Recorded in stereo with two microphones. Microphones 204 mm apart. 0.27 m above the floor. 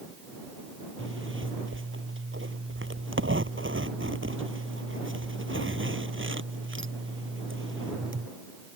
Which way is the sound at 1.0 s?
75° right (ahead or behind).